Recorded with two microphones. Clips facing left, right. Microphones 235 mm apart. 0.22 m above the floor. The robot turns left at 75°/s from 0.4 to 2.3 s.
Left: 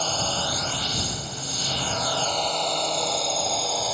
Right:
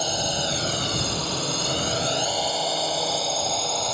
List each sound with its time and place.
0.0 s a drone: 15° right (ahead or behind); by 4.0 s centre (ahead or behind)